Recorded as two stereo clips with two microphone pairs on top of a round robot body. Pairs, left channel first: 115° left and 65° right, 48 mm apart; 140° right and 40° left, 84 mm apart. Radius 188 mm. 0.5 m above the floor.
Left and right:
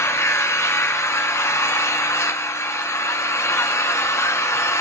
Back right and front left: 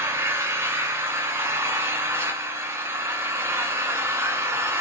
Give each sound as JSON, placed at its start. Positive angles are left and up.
{"t": 0.0, "sound": "an engine running", "azimuth_deg": 100, "distance_m": 2.0}